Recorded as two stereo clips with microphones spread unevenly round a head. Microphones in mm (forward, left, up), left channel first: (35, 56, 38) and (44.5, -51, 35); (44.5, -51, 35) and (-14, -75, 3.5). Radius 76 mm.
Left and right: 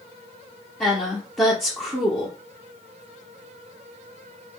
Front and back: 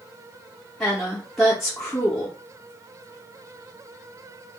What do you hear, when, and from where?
0.8 s a woman speaking: 15° left, 0.7 m